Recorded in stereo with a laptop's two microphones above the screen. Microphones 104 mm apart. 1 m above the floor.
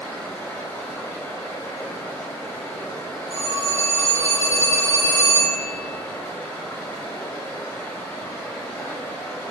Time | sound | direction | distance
0.0 | running water | 25° left (ahead or behind) | 1.4 m
3.3 | a phone ringing | 70° right (ahead or behind) | 1.5 m